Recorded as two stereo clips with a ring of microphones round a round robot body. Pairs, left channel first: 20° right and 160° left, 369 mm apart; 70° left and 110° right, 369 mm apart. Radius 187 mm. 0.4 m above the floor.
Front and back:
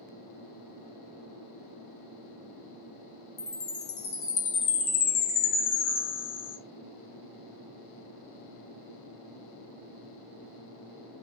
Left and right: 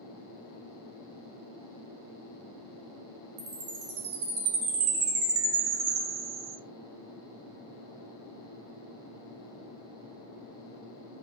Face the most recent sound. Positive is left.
turn(degrees=-45)